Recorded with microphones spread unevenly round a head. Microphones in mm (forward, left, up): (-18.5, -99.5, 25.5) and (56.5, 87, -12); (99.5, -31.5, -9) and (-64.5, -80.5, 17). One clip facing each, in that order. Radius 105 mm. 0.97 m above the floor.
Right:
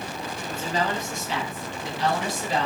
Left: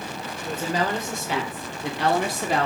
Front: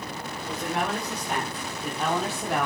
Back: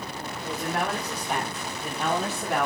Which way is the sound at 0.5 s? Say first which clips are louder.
Left 2 dB, even; 110° left.